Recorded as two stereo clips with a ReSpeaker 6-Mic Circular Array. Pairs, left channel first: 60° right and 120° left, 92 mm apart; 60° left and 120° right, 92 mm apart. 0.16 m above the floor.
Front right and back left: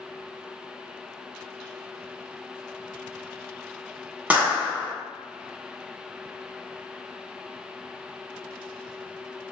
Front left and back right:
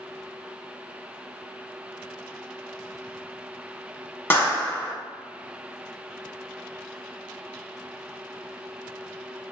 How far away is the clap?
About 0.9 m.